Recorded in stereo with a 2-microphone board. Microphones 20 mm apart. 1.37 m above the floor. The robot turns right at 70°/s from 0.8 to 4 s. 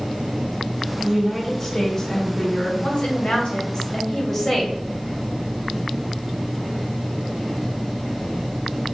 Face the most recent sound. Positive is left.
turn(degrees=155)